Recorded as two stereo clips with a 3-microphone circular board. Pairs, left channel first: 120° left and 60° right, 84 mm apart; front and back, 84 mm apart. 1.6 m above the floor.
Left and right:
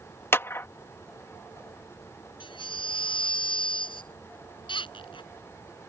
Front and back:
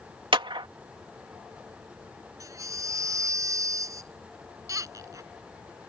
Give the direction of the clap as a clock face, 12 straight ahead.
6 o'clock.